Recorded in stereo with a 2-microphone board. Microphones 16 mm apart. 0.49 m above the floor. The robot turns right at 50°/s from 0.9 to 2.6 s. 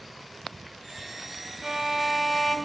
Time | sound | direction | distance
1.6 | a violin | 25° right | 1.9 m